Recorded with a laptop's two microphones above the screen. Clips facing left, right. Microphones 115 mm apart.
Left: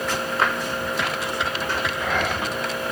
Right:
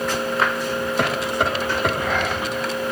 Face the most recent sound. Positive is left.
turn(degrees=-50)  # may be behind; listen again after turning